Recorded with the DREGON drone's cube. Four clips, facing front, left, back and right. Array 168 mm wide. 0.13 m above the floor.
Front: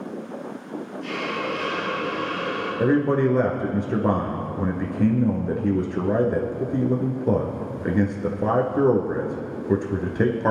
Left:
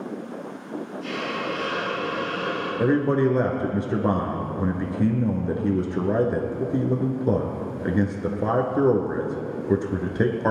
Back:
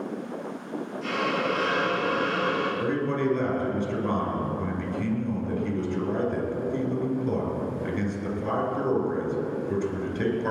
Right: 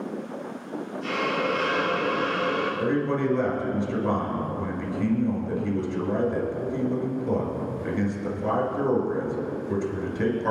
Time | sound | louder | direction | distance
1.0 | a hiss | right 4 dB, back 2 dB | 150° right | 6.5 m
2.8 | a man speaking | left 7 dB, front 6 dB | 45° left | 2 m